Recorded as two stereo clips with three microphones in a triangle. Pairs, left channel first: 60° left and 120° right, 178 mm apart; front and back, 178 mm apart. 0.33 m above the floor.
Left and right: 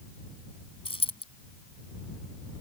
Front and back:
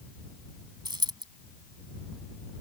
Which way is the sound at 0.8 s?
115° left.